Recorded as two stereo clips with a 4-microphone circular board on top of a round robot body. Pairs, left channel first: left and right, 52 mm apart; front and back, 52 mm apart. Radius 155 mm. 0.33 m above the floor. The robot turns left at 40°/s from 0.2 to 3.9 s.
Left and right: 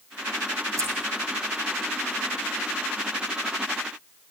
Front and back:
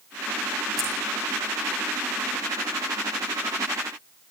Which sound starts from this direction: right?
Scissors, at 0.8 s.